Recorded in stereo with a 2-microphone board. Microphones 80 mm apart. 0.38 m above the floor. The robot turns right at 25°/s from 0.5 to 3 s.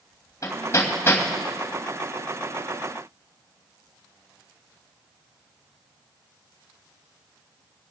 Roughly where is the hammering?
Left.